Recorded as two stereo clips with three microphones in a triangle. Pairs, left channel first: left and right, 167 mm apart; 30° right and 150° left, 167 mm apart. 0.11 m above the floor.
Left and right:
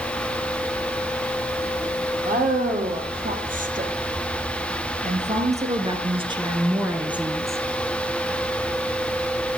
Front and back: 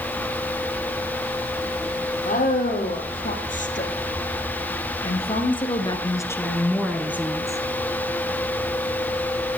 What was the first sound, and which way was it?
A woman speaking, 60° right.